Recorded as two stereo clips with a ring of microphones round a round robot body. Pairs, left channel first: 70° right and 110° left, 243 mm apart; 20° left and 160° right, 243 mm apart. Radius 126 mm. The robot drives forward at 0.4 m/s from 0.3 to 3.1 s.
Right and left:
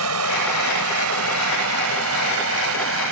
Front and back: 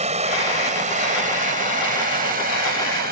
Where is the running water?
140° left; by 3.1 s 150° left.